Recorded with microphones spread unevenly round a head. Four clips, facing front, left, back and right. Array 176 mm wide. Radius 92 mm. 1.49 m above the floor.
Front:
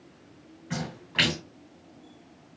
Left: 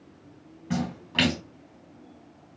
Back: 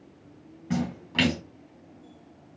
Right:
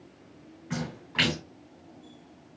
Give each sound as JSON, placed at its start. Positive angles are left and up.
{"t": 0.7, "sound": "a splash", "azimuth_deg": 150, "distance_m": 2.5}